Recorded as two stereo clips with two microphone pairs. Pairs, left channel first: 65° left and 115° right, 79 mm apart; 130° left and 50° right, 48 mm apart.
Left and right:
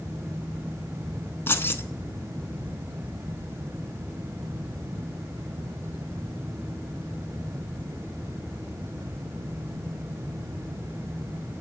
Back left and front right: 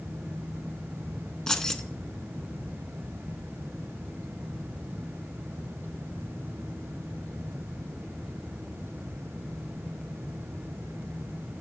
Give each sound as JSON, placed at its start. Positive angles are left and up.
{"t": 1.5, "sound": "keys jangling", "azimuth_deg": 65, "distance_m": 0.8}